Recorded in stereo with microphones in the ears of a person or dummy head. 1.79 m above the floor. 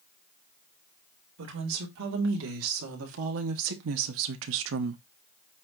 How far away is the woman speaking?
About 3 m.